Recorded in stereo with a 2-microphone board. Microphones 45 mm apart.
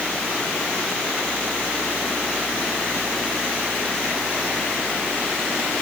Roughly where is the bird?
I don't hear a bird.